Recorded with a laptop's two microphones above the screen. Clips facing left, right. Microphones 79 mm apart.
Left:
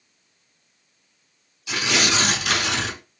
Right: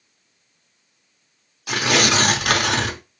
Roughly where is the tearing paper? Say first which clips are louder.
Right 4 dB; right.